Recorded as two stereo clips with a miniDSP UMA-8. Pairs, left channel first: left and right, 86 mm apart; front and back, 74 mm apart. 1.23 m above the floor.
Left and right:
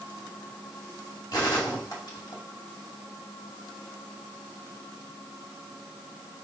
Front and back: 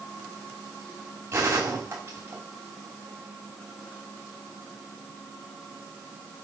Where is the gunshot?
125° left, 2.5 m.